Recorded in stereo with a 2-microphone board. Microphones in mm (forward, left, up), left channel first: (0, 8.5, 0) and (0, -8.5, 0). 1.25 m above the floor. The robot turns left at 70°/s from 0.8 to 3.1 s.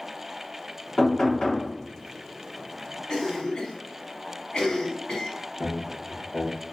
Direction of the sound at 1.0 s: 135° left.